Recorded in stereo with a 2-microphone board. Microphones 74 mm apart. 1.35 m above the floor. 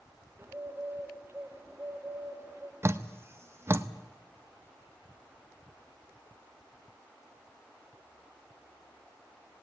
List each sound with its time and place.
0.4 s a bird: 30° right (ahead or behind), 1.8 m
2.8 s dripping: 35° right (ahead or behind), 0.8 m